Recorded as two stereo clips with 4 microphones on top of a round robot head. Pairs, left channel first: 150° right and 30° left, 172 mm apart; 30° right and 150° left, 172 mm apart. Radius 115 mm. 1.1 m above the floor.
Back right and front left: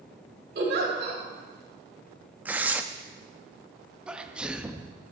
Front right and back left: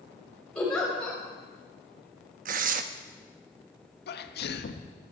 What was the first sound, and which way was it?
A giggle, 55° left.